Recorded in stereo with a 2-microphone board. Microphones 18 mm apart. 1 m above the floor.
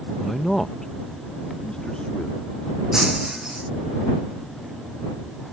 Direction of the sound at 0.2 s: 5° right (ahead or behind).